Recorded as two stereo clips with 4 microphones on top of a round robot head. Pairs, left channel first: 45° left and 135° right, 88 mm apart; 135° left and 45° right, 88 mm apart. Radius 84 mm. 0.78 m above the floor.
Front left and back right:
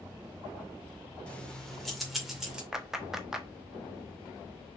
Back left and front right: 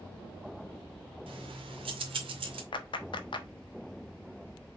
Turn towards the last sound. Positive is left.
turn(degrees=140)